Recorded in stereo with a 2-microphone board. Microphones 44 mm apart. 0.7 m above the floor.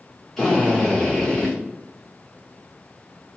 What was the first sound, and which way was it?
A drill, 10° left (ahead or behind).